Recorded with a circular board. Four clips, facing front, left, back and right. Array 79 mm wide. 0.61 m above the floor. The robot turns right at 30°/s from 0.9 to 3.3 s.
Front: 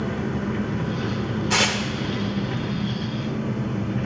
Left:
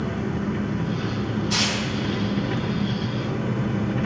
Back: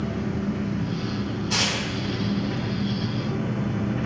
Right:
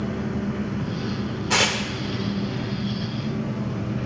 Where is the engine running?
25° left, 1.1 m; by 4.1 s 100° left, 1.1 m.